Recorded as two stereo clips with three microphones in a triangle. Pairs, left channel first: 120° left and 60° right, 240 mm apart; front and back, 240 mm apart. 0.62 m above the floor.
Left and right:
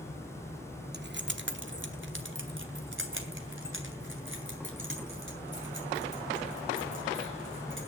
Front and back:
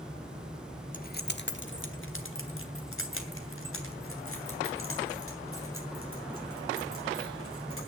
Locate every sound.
0.9 s keys jangling: 40° right, 0.7 m; by 7.9 s 25° right, 7 m